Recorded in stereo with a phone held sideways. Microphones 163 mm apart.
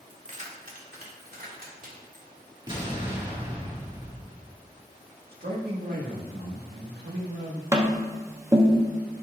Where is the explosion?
30° right (ahead or behind), 1.7 m.